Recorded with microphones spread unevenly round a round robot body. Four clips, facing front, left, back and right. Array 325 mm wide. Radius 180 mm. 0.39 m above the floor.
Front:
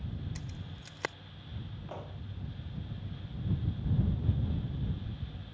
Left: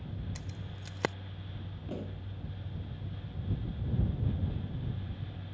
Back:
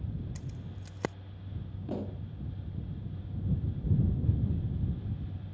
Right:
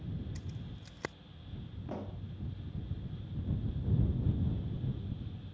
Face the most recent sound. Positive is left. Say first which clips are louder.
# left 1 dB, back 9 dB
turn(degrees=175)